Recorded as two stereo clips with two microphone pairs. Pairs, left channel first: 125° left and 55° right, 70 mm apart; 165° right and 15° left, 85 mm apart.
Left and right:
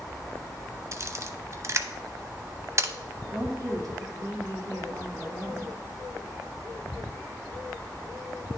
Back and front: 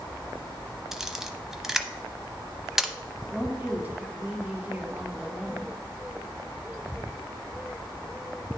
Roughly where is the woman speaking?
Ahead right.